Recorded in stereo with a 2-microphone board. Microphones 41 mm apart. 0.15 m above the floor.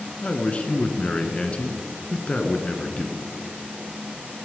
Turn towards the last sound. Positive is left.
turn(degrees=30)  # may be behind; listen again after turning